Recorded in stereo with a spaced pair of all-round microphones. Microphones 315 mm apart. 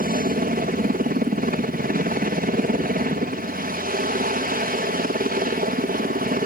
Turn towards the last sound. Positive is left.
turn(degrees=-30)  # may be behind; listen again after turning